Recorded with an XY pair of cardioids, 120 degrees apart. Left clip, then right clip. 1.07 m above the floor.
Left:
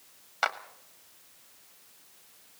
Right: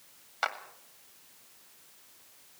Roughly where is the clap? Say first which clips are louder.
Left 3 dB; ahead.